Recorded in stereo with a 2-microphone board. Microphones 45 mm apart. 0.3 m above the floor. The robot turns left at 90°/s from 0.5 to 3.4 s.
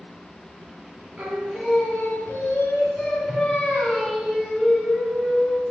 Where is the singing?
135° right, 2 m; by 5.6 s 20° left, 2 m.